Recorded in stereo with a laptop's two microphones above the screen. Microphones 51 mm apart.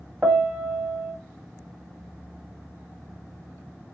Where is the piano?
30° right (ahead or behind), 0.7 m.